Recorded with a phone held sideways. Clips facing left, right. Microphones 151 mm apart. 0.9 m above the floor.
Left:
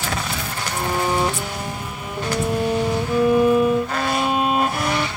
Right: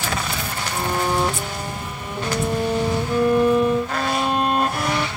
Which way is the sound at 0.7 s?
5° left (ahead or behind).